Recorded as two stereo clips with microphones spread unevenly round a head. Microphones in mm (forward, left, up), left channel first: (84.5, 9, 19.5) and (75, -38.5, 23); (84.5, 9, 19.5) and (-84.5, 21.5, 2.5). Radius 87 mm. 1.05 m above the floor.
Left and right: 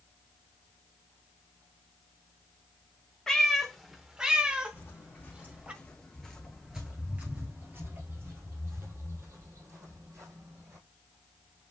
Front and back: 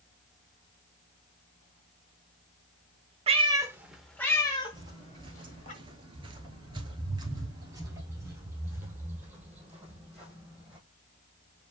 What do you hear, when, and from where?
3.3 s a cat meowing: 160° left, 0.7 m; by 5.7 s 45° right, 1.4 m
4.7 s footsteps: 115° left, 1.4 m; by 10.8 s 95° right, 2.5 m